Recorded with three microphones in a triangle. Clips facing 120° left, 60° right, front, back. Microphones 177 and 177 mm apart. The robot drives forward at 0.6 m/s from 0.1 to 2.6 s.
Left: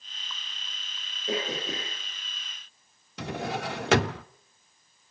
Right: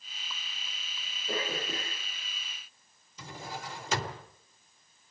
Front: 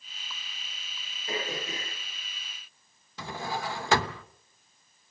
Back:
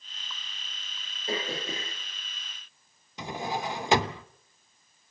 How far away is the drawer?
About 0.6 m.